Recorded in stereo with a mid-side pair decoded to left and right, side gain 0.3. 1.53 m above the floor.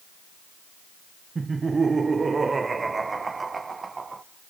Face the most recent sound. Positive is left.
turn(degrees=-45)